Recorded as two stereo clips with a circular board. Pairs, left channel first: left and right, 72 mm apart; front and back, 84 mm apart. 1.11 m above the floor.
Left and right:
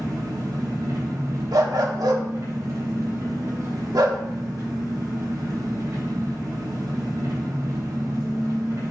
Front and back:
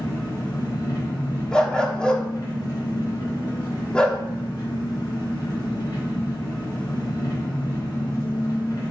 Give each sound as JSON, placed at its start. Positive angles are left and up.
{"t": 0.0, "sound": "an engine running", "azimuth_deg": -50, "distance_m": 3.5}
{"t": 1.5, "sound": "a dog barking", "azimuth_deg": -80, "distance_m": 1.0}